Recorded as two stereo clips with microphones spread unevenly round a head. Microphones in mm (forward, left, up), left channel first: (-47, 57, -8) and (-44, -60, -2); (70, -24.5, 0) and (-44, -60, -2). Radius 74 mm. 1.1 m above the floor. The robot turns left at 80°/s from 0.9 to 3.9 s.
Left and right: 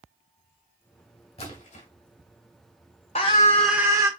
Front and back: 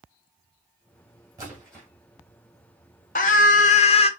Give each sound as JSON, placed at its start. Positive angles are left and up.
{"t": 1.4, "sound": "a splash", "azimuth_deg": 130, "distance_m": 2.0}
{"t": 3.1, "sound": "a scream", "azimuth_deg": 45, "distance_m": 0.9}